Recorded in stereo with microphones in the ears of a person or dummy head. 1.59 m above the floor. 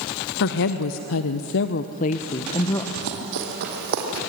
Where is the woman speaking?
60° left (ahead or behind), 1.0 m; by 2.9 s 20° left (ahead or behind), 1.1 m.